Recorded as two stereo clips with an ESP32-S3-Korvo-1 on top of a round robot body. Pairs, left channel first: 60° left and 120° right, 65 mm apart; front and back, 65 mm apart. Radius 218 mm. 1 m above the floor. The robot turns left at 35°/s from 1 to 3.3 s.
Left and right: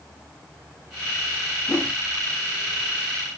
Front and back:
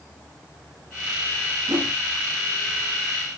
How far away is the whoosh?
About 0.6 m.